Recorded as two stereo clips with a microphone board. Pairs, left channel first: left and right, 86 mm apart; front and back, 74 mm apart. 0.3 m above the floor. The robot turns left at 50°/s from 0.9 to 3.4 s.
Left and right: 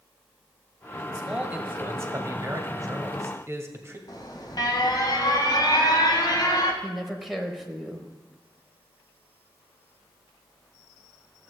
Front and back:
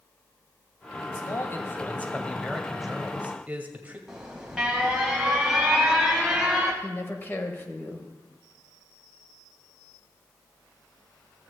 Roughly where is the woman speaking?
Ahead.